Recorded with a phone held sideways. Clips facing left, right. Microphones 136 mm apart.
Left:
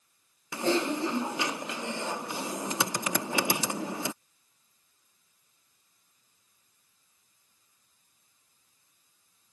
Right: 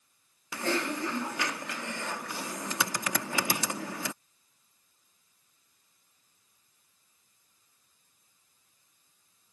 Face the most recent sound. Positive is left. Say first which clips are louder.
# left 4 dB
turn(degrees=20)  # may be behind; listen again after turning